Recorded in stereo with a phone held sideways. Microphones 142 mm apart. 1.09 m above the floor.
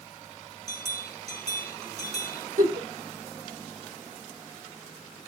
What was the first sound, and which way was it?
A bell, 50° right (ahead or behind).